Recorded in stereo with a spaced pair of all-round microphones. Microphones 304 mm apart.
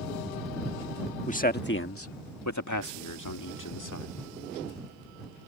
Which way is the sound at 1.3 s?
25° left (ahead or behind).